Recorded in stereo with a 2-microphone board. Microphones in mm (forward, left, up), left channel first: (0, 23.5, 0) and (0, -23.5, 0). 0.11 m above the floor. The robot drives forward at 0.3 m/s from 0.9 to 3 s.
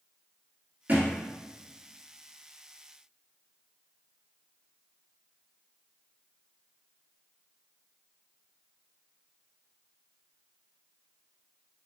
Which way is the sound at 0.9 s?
45° right (ahead or behind).